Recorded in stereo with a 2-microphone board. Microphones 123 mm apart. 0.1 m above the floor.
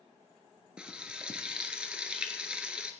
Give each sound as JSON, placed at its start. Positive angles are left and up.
{"t": 0.8, "sound": "frying", "side_deg": -10, "distance_m": 1.1}